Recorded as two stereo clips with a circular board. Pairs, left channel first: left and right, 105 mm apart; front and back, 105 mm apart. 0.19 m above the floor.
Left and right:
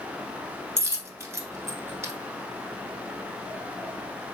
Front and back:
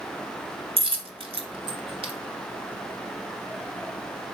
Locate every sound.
0.8 s a dropped coin: 155° right, 0.7 m